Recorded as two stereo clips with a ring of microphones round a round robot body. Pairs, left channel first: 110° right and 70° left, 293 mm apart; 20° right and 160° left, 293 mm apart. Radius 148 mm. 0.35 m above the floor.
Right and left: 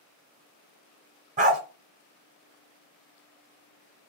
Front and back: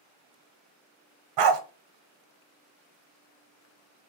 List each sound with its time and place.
1.4 s a dog barking: 135° left, 1.0 m